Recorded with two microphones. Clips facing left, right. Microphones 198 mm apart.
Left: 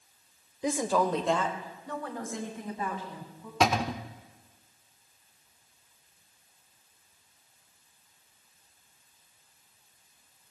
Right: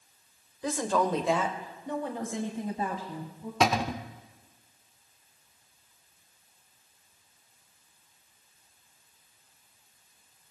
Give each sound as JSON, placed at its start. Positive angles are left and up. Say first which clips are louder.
{"t": 0.6, "sound": "a woman speaking", "louder": "left 1 dB", "side_deg": 20, "distance_m": 1.2}
{"t": 3.6, "sound": "a cupboard door", "louder": "even", "side_deg": 0, "distance_m": 0.7}